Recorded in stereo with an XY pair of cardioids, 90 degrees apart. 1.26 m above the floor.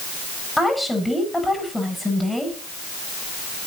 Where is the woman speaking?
10° left, 7.5 m.